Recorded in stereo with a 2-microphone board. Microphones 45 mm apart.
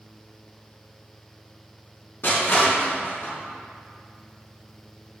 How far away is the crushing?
About 3.5 m.